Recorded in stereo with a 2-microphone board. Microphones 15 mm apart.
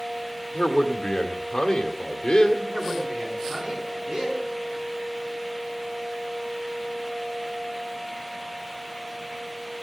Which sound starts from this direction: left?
A man speaking, at 0.5 s.